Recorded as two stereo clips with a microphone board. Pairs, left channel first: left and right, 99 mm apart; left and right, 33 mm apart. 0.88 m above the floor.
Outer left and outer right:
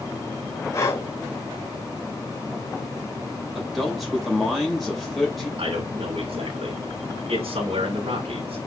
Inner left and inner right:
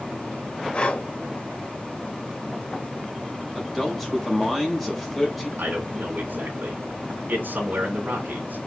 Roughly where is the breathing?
Left.